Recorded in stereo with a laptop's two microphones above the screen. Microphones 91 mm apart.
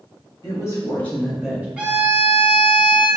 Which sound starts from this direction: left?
A woman speaking, at 0.4 s.